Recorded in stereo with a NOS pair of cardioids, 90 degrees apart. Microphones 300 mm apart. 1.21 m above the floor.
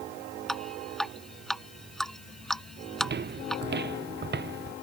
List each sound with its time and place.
0.5 s dripping: straight ahead
3.0 s footsteps: 35° right